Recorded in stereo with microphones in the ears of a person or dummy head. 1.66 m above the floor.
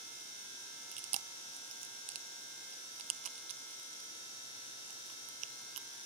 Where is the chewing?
35° right (ahead or behind), 1.0 m.